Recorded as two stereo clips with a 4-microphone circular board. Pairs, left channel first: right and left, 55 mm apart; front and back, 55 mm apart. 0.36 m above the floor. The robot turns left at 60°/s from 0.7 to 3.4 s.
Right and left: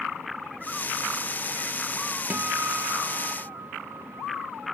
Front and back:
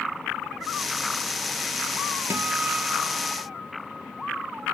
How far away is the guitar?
About 0.9 m.